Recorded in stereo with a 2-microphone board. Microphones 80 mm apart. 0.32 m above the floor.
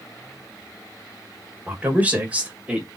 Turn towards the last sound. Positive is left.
turn(degrees=-10)  # may be behind; listen again after turning